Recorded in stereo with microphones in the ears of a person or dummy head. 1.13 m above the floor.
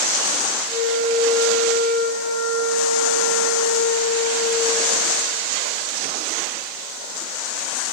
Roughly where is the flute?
Right.